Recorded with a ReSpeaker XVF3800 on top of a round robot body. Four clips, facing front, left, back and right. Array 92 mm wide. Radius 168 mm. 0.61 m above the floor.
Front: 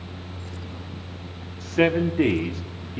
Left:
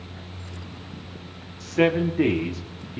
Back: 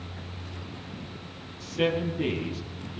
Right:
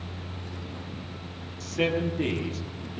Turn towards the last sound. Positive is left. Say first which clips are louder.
# left 6 dB, front 6 dB
turn(degrees=35)